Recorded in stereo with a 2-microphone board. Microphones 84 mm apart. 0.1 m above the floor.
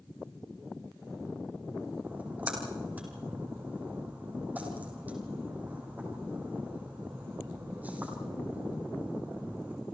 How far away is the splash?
About 5 m.